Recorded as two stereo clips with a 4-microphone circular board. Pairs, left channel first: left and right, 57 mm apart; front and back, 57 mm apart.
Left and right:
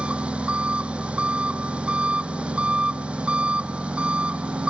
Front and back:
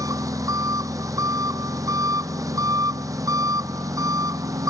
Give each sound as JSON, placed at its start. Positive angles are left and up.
{"t": 0.0, "sound": "an engine running", "azimuth_deg": -160}